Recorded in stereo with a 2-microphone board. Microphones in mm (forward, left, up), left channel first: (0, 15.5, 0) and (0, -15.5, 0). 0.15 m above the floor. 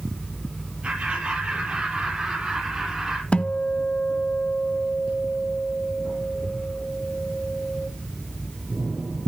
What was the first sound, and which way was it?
Laughter, 40° right (ahead or behind).